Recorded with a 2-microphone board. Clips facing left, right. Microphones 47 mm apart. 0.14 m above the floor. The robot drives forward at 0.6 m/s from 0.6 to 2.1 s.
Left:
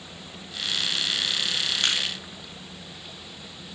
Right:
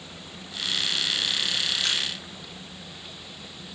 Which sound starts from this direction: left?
Crushing, at 1.8 s.